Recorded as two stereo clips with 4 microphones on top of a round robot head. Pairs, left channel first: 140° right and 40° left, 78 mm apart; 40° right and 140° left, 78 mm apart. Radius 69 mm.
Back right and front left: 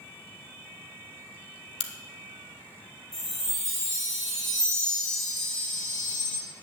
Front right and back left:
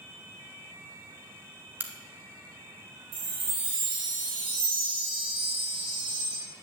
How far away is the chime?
About 3 m.